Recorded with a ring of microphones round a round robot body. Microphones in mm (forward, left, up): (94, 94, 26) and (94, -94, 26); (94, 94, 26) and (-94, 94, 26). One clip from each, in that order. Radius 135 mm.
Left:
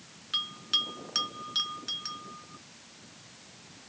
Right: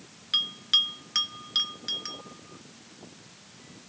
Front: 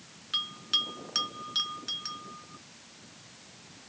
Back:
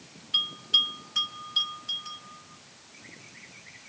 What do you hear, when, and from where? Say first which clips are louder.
0.3 s a bell: right 5 dB, back 5 dB; 10° right, 2.5 m